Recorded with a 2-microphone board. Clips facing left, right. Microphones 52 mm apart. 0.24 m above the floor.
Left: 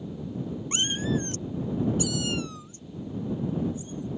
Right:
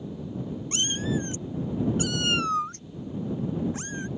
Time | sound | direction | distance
0.7 | a cat meowing | 25° left (ahead or behind) | ?